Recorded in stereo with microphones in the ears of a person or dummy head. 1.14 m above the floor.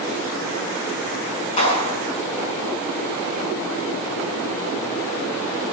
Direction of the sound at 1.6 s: 30° left (ahead or behind).